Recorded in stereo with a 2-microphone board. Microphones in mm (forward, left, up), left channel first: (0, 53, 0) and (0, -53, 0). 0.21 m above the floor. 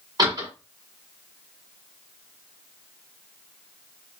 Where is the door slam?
45° right (ahead or behind), 1.4 m.